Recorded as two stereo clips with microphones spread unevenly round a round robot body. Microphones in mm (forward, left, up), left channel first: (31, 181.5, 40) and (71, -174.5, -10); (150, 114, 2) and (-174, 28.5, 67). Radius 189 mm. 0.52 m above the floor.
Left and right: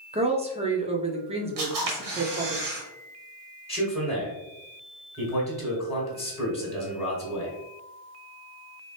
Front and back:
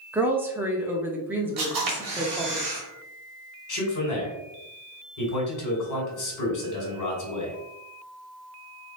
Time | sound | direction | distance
0.1 | a woman speaking | 65° right | 0.8 m
1.6 | a camera shutter | 125° right | 1.6 m
3.7 | a man speaking | 10° left | 2 m